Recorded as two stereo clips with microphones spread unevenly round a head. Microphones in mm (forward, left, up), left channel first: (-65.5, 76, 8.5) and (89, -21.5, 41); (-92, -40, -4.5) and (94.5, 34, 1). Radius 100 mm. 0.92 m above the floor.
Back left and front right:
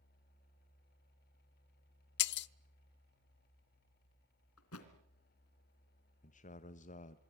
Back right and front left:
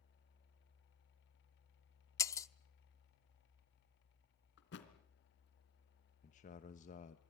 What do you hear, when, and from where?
2.2 s breaking glass: 130° left, 0.5 m
4.6 s a thud: 165° left, 2.5 m
6.2 s a man speaking: 160° left, 1.1 m